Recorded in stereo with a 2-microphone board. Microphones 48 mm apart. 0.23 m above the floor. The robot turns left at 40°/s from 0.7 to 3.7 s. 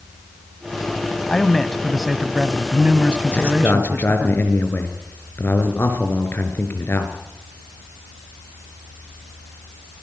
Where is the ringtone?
I don't hear a ringtone.